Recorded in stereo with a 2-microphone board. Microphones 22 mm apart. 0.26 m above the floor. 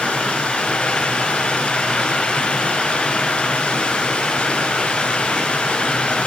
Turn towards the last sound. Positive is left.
turn(degrees=60)  # may be behind; listen again after turning